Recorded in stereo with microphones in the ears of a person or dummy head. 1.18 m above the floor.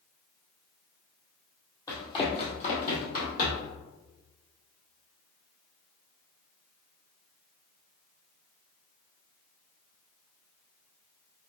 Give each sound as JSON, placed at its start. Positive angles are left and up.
{"t": 1.9, "sound": "running footsteps", "side_deg": 15, "distance_m": 1.9}